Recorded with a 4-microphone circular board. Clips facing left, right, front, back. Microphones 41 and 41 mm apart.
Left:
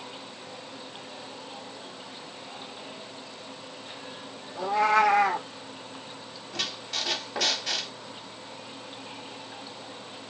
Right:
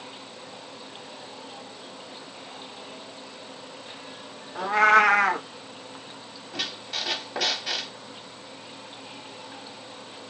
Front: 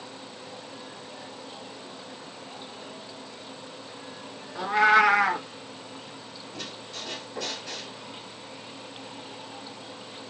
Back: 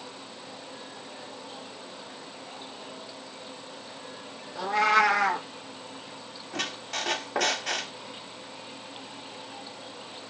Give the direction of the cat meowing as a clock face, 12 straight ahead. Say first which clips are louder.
Right 4 dB, front 3 dB; 2 o'clock.